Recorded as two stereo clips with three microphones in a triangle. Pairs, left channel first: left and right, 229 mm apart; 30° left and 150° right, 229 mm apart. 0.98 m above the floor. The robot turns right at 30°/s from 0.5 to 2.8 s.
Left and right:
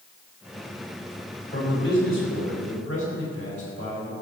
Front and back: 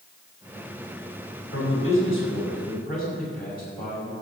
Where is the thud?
I don't hear a thud.